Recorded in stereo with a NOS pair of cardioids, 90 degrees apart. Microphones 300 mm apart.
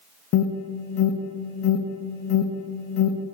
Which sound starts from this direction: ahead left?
An alarm, at 0.3 s.